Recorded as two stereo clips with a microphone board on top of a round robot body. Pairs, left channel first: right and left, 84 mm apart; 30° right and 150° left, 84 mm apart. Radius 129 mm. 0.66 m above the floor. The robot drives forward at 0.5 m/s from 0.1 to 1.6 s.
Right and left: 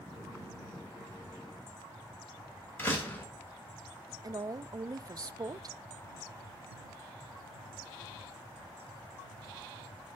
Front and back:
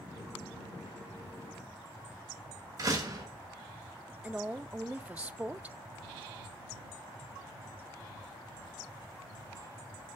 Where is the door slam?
160° right, 2.5 m.